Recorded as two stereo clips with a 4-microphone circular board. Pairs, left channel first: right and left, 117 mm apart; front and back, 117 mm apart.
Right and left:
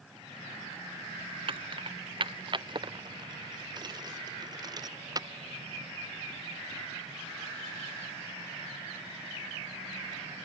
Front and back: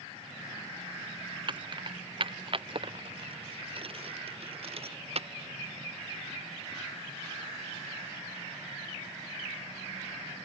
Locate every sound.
1.5 s keys jangling: 130° left; by 5.3 s 145° left